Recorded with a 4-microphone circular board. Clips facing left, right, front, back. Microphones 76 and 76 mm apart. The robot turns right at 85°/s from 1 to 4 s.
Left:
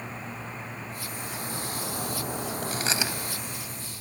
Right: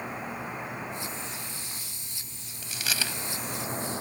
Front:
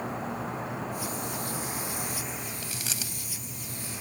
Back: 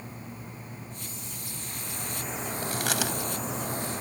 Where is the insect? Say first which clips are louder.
Right 3 dB, front 10 dB; 15° right; by 4.0 s 120° right.